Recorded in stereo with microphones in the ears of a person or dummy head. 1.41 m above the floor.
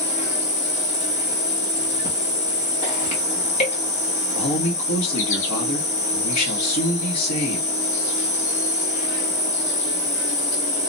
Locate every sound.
0.0 s an insect: 45° left (ahead or behind), 1.1 m
4.3 s a man speaking: 80° left, 1.2 m